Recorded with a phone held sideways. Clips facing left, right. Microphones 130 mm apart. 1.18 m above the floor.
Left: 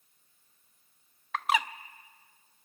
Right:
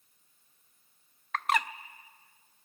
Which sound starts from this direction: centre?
A bird, at 1.3 s.